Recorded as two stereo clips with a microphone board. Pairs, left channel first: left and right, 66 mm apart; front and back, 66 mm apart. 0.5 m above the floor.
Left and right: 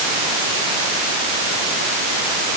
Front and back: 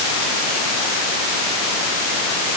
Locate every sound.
Only background noise.